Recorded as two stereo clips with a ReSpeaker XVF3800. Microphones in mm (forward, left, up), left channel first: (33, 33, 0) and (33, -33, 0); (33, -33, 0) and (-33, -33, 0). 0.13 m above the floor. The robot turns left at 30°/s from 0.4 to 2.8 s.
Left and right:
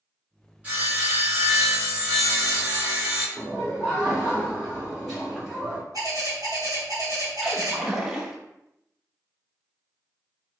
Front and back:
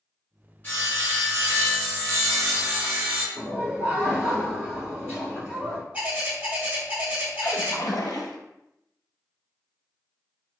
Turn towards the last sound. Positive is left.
turn(degrees=-10)